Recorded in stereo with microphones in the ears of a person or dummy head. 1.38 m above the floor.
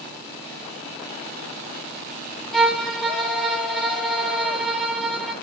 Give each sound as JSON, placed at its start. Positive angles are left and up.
{"t": 2.5, "sound": "a violin", "side_deg": 5, "distance_m": 4.0}